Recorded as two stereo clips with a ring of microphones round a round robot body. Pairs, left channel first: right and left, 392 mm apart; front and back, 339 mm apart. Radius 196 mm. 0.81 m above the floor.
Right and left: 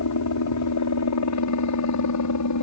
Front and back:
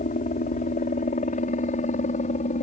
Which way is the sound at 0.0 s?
65° right.